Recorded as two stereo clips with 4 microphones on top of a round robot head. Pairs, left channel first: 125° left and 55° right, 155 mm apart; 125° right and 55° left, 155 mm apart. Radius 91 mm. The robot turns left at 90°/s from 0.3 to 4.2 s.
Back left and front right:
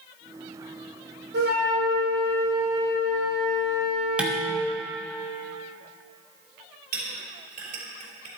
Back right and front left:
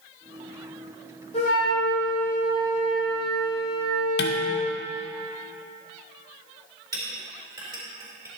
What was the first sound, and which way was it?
A flute, 70° right.